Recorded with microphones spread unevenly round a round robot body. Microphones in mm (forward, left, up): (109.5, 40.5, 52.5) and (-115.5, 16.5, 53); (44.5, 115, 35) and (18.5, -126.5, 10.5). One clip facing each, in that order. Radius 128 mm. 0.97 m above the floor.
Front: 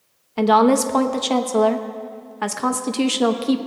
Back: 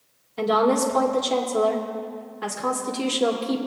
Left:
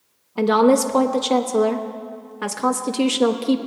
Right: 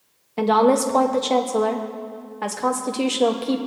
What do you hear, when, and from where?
0.4 s a woman speaking: 10° left, 1.1 m